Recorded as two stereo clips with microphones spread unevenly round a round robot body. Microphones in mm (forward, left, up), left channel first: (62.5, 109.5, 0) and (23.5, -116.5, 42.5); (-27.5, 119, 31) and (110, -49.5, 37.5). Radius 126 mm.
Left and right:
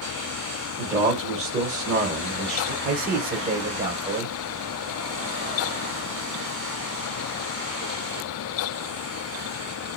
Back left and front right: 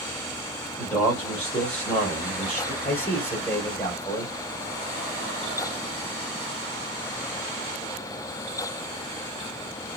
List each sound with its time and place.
0.8 s a man speaking: 155° right, 1.4 m
2.8 s a man speaking: 155° right, 1.2 m